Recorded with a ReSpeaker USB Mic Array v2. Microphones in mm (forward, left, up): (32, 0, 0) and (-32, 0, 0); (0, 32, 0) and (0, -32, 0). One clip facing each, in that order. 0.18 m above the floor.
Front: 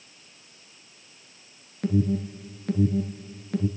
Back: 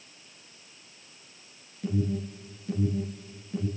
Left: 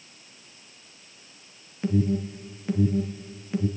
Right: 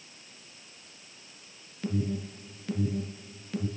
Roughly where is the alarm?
Ahead.